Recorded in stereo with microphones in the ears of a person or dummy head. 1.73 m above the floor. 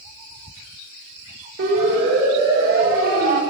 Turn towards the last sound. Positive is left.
turn(degrees=-50)  # may be behind; listen again after turning